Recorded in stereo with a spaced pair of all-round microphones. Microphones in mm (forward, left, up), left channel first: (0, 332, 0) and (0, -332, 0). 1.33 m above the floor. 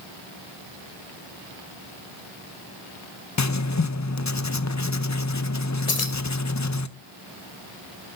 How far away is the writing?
About 0.6 m.